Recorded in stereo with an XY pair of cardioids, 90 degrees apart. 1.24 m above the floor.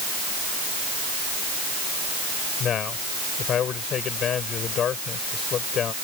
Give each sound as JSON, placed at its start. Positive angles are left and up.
{"t": 2.6, "sound": "a man speaking", "azimuth_deg": 70}